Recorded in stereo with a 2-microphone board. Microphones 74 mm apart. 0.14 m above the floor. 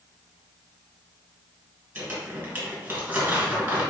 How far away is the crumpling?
About 2 m.